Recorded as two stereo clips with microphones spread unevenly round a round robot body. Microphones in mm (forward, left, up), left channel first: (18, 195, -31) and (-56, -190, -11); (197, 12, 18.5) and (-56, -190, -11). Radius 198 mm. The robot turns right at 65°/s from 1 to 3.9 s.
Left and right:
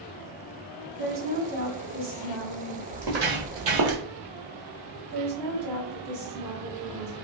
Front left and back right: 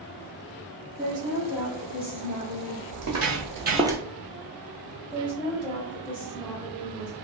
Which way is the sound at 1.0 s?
115° right.